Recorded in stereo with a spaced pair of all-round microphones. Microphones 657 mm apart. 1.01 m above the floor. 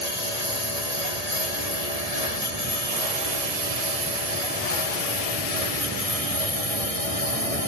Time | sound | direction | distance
0.0 | a lawn mower | 70° left (ahead or behind) | ?